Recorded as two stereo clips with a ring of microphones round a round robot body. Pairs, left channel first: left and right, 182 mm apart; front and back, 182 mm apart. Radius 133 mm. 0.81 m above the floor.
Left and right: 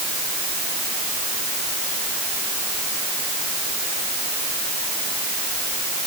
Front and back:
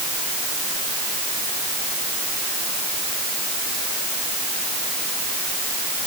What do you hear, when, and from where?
Only background noise.